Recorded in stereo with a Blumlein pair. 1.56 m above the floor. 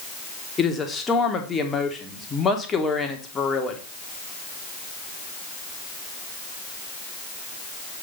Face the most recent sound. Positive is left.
turn(degrees=15)